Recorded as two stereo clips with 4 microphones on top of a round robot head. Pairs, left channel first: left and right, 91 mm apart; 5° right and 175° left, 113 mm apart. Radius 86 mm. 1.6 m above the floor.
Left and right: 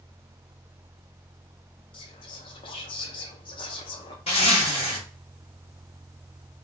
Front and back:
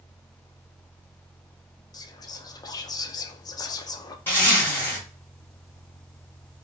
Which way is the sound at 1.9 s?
55° left.